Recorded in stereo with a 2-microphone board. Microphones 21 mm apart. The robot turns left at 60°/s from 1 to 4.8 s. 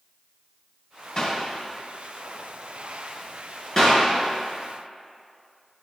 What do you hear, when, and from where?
1.2 s a clap: 40° left (ahead or behind), 1.9 m; by 1.4 s 50° left (ahead or behind), 1.9 m
3.8 s a clap: 15° left (ahead or behind), 3 m; by 4.0 s 30° left (ahead or behind), 3 m